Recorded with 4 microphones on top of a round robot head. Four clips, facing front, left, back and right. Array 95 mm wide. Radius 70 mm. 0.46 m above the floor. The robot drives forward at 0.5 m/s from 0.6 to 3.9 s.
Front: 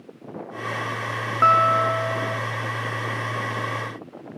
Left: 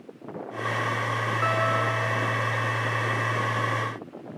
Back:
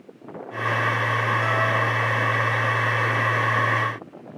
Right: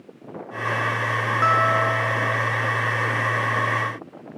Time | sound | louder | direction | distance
1.4 | a guitar | right 6 dB, front 5 dB | 25° right | 1.6 m